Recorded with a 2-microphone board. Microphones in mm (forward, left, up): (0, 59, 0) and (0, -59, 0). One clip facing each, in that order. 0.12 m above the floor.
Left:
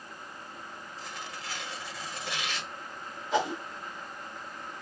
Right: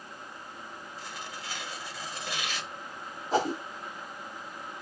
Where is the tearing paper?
Centre (ahead or behind), 0.9 m.